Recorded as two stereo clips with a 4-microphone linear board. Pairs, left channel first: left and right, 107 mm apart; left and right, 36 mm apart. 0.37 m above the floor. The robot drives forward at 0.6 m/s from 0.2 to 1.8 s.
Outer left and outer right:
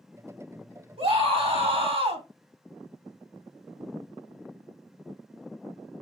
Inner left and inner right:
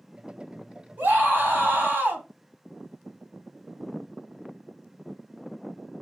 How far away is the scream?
About 2.5 m.